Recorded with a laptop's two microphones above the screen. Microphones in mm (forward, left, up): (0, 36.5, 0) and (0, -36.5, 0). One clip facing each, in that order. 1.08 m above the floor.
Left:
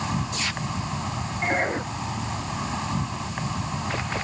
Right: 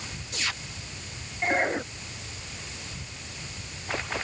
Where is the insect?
85° left.